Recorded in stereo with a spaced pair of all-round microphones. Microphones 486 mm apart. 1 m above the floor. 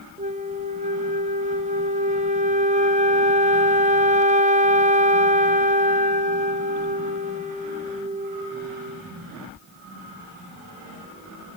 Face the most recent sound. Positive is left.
turn(degrees=-15)  # may be behind; listen again after turning